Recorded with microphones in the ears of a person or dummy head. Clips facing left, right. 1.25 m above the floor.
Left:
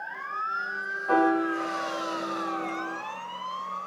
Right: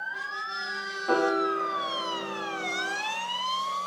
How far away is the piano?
About 1.4 m.